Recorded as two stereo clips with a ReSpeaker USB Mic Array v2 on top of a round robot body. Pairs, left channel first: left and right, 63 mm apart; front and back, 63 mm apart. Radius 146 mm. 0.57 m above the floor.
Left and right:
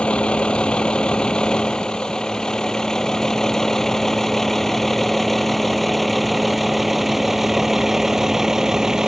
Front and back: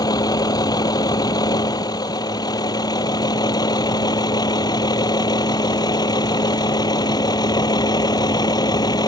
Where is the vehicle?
15° left; by 9.1 s 5° right.